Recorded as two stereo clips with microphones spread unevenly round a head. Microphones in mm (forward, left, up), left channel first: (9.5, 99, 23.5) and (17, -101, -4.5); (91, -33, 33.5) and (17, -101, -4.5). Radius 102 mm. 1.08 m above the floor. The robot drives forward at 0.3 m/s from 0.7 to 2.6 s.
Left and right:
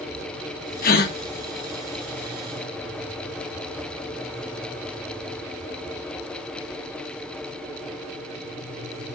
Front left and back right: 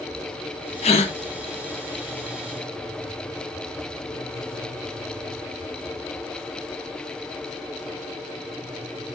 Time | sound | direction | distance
0.8 | a gasp | 45° left | 0.6 m